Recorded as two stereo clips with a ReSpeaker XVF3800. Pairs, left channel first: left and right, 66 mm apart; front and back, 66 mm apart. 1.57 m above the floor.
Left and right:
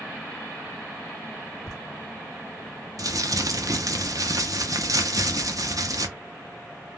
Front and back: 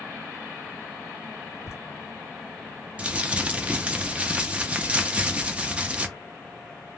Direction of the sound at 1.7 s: 40° right.